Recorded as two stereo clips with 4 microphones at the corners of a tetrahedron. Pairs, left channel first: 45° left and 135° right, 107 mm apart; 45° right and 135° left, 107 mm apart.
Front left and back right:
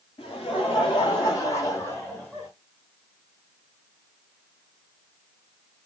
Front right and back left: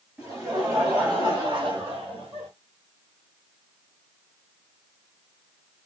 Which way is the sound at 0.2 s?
60° left.